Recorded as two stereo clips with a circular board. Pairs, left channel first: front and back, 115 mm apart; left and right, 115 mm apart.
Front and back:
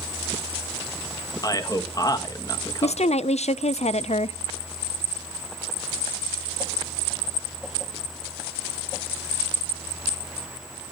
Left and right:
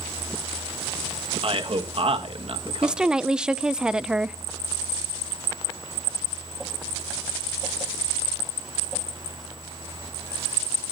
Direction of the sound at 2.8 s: 5° right.